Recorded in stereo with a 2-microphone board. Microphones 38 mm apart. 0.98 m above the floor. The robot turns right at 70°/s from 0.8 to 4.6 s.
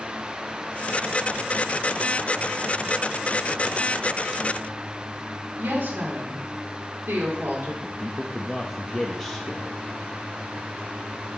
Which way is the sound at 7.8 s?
5° left (ahead or behind).